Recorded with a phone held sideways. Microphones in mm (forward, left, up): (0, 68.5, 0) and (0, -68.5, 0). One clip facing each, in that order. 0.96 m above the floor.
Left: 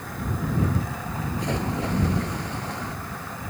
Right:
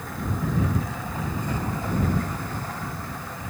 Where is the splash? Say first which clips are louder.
Left 5 dB; 80° left.